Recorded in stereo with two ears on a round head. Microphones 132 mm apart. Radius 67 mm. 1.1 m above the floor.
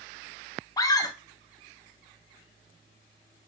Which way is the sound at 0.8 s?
25° left (ahead or behind).